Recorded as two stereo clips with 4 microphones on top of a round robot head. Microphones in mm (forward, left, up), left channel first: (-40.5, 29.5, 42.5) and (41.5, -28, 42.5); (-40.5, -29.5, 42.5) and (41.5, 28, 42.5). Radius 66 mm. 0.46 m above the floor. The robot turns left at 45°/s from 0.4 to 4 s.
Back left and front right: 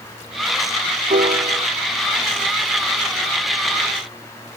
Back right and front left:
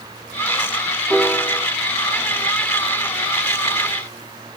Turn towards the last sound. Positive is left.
turn(degrees=175)